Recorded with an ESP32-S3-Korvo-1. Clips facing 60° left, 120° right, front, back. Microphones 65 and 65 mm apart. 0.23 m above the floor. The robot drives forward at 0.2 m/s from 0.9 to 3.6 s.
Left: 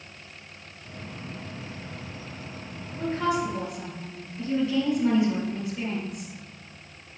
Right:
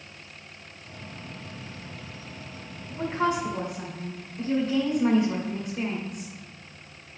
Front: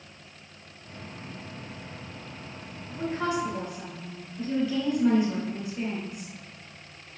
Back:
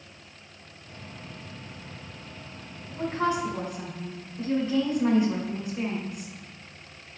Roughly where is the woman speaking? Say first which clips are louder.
Even, back 2 dB; behind right.